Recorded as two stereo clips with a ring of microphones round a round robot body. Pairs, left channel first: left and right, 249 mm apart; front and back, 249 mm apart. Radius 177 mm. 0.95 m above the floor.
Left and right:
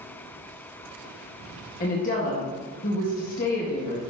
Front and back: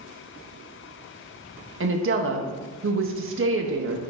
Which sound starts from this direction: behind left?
A woman speaking, at 1.8 s.